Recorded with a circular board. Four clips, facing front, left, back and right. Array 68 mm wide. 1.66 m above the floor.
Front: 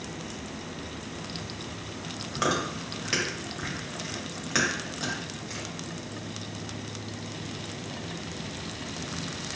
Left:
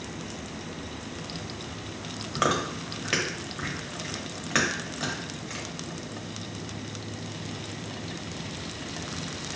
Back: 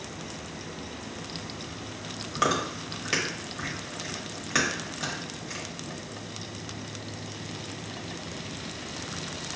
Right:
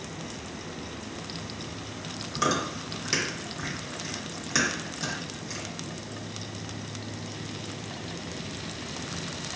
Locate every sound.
2.4 s chewing: 95° left, 1.0 m